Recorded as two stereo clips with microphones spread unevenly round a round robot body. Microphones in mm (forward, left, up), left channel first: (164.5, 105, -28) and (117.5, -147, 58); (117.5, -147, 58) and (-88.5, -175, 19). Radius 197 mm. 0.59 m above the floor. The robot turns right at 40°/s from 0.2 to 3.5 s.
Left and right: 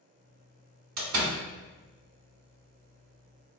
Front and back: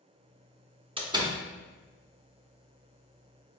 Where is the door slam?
125° right, 1.0 m; by 1.4 s 110° right, 1.0 m.